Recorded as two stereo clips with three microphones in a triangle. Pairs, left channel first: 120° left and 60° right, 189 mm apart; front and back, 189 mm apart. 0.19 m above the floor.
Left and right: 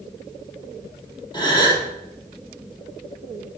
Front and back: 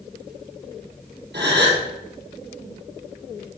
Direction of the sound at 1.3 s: 175° right.